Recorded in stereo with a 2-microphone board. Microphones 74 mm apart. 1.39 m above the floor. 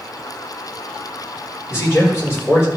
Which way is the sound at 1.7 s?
35° left (ahead or behind).